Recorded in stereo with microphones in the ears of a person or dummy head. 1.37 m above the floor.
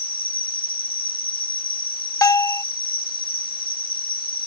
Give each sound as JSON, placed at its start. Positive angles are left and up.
{"t": 0.0, "sound": "an insect", "side_deg": 30}
{"t": 2.2, "sound": "a bell", "side_deg": 20}